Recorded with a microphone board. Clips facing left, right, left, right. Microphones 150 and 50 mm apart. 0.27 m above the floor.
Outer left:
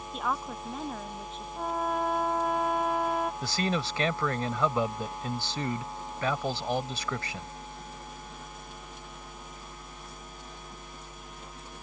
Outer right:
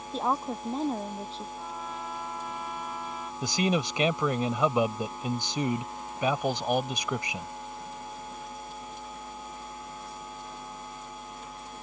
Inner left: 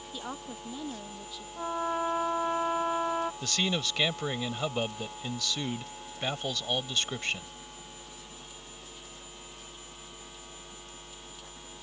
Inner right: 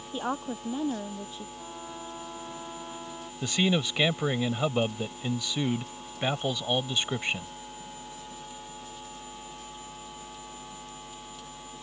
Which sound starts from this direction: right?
A woman speaking, at 0.1 s.